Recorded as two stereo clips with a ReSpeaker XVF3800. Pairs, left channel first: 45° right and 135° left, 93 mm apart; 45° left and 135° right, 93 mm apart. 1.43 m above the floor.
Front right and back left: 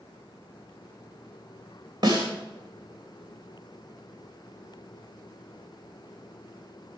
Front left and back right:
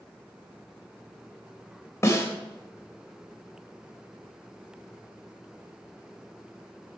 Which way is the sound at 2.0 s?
105° left.